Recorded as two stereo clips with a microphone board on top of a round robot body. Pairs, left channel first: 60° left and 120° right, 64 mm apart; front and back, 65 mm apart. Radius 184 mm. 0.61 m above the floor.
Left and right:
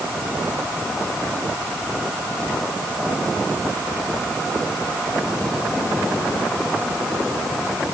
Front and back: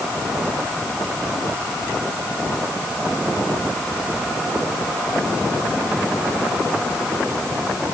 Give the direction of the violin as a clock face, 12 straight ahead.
I don't hear a violin.